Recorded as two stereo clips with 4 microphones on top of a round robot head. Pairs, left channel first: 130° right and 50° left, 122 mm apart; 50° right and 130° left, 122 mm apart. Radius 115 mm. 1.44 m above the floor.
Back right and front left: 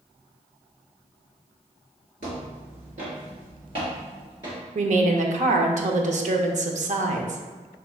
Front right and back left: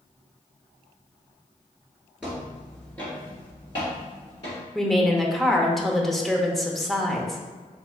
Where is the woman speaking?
40° left, 0.7 m.